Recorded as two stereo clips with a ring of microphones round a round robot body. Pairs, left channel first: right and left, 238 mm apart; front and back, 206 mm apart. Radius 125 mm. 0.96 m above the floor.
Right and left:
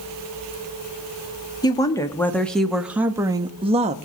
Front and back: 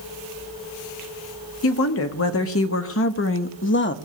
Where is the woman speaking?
15° right, 1.7 m; by 4.0 s 30° left, 1.4 m.